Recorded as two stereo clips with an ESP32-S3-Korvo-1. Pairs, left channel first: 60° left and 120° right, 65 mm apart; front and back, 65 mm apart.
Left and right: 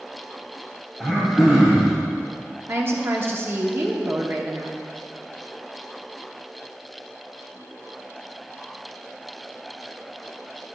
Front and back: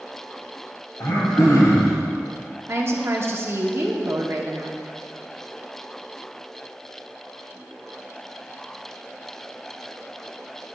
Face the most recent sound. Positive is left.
turn(degrees=-155)